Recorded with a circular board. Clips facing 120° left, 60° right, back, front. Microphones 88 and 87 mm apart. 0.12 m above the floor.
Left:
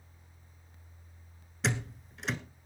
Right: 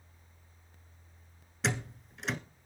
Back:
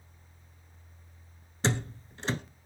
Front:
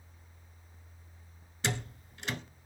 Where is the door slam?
150° right, 1.0 m.